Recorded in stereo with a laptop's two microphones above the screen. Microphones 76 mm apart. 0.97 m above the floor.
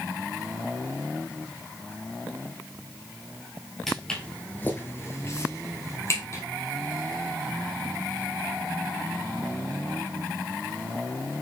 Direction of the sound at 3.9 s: 5° left (ahead or behind).